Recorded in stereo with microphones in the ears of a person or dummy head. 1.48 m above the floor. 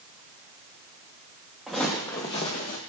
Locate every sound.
1.7 s footsteps: 5° right (ahead or behind), 1.7 m; by 2.8 s 30° left (ahead or behind), 1.7 m